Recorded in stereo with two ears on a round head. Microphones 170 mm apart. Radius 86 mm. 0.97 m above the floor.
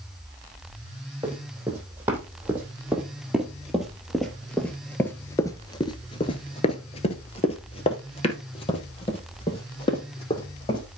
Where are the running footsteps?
10° right (ahead or behind), 3 m; by 10.8 s 25° left (ahead or behind), 3 m.